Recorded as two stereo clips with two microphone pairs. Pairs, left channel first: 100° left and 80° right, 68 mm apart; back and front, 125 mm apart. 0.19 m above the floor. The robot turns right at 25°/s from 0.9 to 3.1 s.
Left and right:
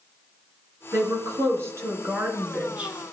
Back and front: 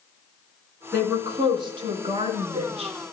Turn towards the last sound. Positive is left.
turn(degrees=-5)